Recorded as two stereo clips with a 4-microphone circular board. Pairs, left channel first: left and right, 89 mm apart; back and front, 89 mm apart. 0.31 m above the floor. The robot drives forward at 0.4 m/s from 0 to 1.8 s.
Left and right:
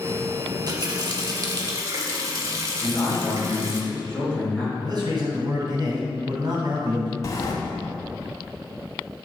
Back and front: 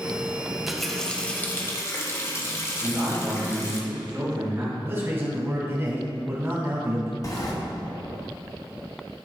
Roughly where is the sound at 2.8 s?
Ahead left.